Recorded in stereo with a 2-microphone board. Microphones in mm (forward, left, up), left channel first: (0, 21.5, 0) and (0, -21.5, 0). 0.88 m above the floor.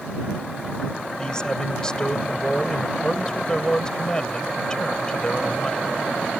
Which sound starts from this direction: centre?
A man speaking, at 1.2 s.